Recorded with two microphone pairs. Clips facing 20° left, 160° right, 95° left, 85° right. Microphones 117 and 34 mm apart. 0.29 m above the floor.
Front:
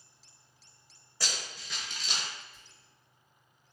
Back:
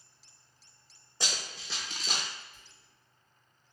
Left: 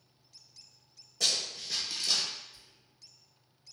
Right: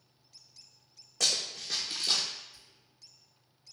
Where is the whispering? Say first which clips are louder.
Even, even; 25° left, 1.8 m.